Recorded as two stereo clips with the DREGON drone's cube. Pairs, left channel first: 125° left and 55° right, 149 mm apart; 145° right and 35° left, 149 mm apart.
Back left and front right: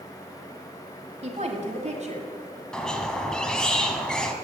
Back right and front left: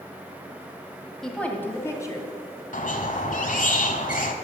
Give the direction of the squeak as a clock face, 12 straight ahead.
5 o'clock.